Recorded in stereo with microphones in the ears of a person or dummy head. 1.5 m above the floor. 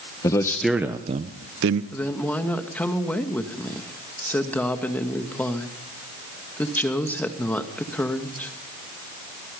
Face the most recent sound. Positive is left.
turn(degrees=5)  # may be behind; listen again after turning